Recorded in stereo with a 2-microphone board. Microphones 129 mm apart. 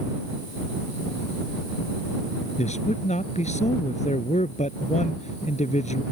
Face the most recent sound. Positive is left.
turn(degrees=65)  # may be behind; listen again after turning